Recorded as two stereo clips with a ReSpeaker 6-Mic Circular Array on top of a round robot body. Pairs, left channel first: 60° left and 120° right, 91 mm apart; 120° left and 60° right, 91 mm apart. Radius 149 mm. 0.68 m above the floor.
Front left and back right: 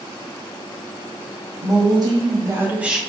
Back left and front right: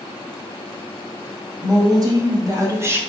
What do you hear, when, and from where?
1.6 s a woman speaking: 100° right, 1.5 m; by 3.0 s 35° right, 0.8 m